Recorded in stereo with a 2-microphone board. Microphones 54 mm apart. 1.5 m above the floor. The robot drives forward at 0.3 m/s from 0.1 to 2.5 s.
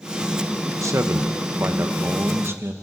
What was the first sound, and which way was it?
A man speaking, 60° right (ahead or behind).